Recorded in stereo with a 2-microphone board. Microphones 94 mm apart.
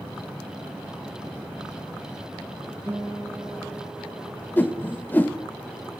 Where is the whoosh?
20° left (ahead or behind), 0.5 m.